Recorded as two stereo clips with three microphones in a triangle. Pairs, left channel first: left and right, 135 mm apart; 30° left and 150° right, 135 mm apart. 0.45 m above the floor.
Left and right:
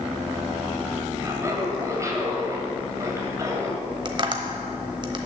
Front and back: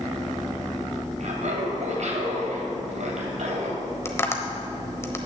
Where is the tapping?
40° right, 1.0 m.